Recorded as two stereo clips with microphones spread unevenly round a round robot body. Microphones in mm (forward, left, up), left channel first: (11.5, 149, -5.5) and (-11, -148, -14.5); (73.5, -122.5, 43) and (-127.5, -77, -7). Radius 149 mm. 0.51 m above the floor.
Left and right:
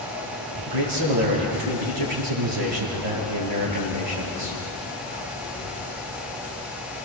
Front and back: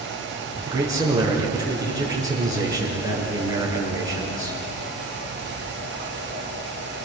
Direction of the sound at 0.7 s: 120° right.